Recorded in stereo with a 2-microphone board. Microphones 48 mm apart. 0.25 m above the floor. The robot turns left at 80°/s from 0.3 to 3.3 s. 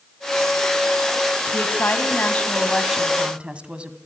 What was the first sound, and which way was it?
A woman speaking, 110° left.